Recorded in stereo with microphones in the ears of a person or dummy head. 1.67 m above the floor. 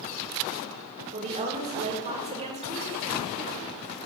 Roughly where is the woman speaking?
Right.